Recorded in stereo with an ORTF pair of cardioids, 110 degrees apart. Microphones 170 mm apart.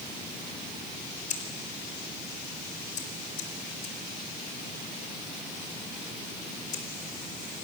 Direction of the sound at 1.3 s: 50° left.